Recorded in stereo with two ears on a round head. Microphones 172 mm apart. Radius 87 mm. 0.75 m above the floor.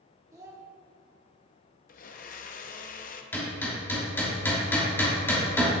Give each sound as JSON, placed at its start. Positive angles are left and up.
{"t": 0.3, "sound": "a child speaking", "side_deg": -15, "distance_m": 1.1}
{"t": 1.9, "sound": "a blender", "side_deg": 45, "distance_m": 0.6}
{"t": 3.3, "sound": "hammering", "side_deg": 10, "distance_m": 2.5}